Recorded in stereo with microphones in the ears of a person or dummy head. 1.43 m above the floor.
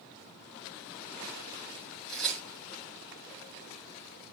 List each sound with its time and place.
2.1 s tearing paper: 5° left (ahead or behind), 3.5 m